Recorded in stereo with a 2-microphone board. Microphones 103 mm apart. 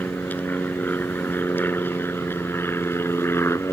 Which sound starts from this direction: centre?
An aircraft, at 0.0 s.